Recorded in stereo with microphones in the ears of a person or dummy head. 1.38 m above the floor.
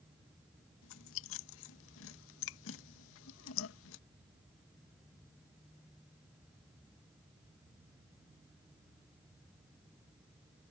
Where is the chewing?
75° left (ahead or behind).